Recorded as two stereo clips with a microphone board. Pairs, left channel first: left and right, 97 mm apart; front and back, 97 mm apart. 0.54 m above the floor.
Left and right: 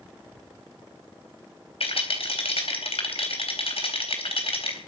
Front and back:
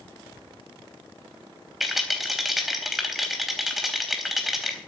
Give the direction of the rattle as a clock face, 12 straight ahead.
9 o'clock.